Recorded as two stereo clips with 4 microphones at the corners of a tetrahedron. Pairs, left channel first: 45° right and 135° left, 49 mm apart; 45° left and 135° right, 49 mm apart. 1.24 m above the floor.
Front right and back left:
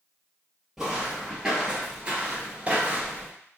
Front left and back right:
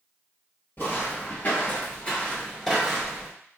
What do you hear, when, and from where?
0.8 s footsteps: 55° left, 1.8 m; by 3.3 s 155° left, 1.4 m